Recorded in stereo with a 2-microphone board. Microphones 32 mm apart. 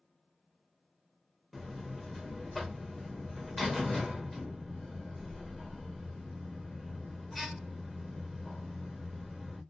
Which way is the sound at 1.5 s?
Centre (ahead or behind).